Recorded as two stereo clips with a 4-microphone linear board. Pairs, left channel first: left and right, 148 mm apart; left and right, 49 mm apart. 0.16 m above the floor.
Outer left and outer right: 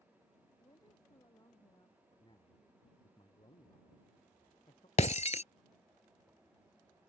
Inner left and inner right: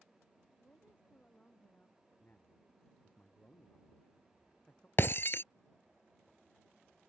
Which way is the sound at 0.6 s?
30° left (ahead or behind).